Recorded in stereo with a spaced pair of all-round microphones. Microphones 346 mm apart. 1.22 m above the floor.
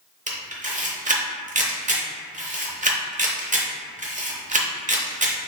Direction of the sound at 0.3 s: 20° right (ahead or behind).